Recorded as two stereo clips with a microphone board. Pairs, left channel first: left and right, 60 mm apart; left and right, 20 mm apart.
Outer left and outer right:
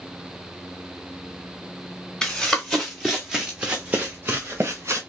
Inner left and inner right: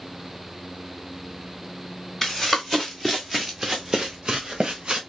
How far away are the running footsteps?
About 1.8 m.